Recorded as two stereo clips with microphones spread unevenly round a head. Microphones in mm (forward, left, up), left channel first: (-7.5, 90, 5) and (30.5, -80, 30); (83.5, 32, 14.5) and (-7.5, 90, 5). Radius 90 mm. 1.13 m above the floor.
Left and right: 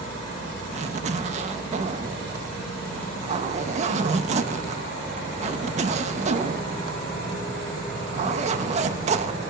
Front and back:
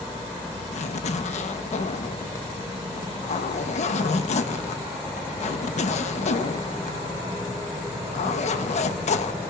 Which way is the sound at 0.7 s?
25° right.